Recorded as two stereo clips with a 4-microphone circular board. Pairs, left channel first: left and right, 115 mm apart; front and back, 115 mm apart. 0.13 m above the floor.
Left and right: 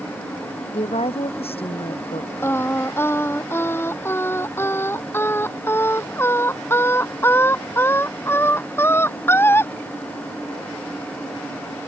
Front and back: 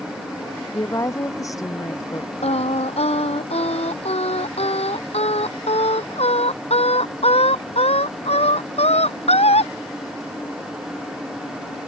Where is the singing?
20° left.